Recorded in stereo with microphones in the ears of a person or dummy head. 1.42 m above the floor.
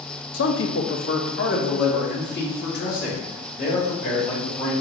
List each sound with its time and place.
0.3 s a man speaking: 60° left (ahead or behind), 0.6 m; by 4.7 s 45° left (ahead or behind), 2.5 m